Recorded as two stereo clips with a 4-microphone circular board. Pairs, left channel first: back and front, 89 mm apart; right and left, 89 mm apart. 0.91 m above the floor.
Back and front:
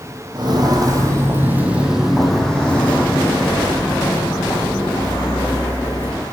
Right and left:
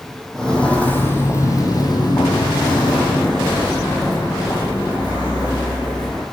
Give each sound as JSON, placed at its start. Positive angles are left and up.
{"t": 0.3, "sound": "footsteps", "azimuth_deg": -5, "distance_m": 1.5}